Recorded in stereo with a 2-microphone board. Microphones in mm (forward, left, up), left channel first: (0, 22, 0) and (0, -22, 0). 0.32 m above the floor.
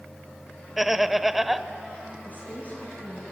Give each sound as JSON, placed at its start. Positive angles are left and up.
{"t": 0.8, "sound": "laughter", "side_deg": -5, "distance_m": 0.9}
{"t": 2.2, "sound": "a woman speaking", "side_deg": 30, "distance_m": 5.5}